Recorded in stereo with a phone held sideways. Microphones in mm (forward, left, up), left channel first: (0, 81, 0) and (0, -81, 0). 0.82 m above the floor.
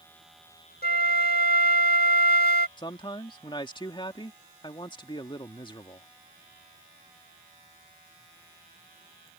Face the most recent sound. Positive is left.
turn(degrees=30)  # may be behind; listen again after turning